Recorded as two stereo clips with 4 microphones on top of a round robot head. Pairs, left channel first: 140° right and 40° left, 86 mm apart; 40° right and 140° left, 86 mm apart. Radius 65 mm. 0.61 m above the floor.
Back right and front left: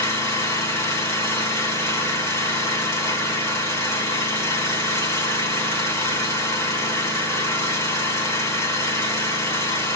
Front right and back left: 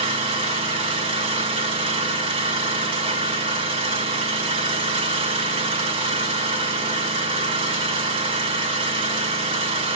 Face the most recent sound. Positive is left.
turn(degrees=160)